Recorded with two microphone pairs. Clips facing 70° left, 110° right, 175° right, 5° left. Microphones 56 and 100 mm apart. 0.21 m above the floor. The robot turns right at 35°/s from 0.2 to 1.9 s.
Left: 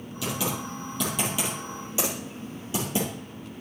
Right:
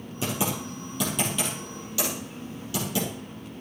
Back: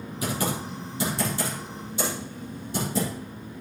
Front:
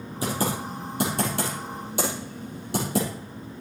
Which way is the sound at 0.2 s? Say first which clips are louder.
Right 1 dB, front 2 dB; 55° right.